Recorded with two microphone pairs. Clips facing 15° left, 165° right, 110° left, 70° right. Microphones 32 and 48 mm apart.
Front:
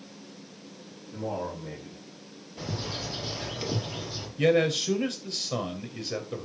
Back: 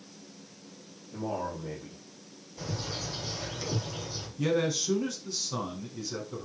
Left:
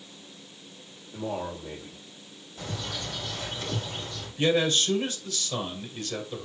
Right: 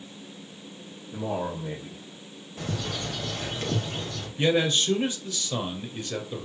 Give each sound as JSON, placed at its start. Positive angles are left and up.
{"t": 1.1, "sound": "a man speaking", "azimuth_deg": -65, "distance_m": 4.0}
{"t": 2.6, "sound": "a bird", "azimuth_deg": -35, "distance_m": 3.0}
{"t": 4.4, "sound": "a man speaking", "azimuth_deg": 0, "distance_m": 2.0}